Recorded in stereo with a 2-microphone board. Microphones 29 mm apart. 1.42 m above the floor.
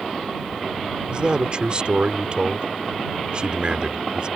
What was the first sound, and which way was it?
A man speaking, 35° right (ahead or behind).